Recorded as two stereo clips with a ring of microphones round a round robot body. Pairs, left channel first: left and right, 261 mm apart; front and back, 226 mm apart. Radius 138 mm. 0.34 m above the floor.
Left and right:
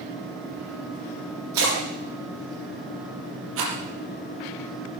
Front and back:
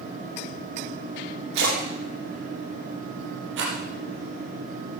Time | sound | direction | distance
1.5 | a splash | 125° right | 7.5 m
3.6 | a rattle | 130° right | 5 m